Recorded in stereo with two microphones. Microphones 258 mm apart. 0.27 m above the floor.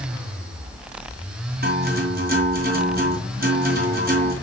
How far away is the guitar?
About 2.5 m.